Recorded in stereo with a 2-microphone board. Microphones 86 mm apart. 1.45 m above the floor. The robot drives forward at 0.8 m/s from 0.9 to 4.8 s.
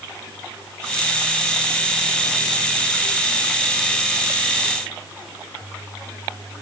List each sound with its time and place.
Only background noise.